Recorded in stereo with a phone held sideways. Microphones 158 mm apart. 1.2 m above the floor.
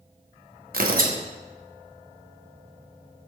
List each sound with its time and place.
0.7 s tearing paper: 65° right (ahead or behind), 0.9 m